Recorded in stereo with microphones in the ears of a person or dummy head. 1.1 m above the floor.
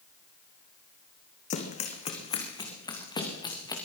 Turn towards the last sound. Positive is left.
turn(degrees=25)  # may be behind; listen again after turning